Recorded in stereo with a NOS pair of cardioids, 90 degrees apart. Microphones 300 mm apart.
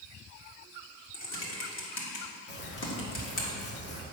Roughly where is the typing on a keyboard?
Ahead left.